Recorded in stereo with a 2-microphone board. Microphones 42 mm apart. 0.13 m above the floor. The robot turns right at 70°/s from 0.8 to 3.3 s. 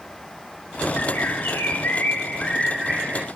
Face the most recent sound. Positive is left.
turn(degrees=-145)